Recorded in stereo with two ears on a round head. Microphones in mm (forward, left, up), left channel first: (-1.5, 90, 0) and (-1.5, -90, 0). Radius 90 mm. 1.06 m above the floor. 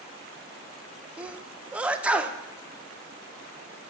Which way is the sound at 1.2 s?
5° right (ahead or behind).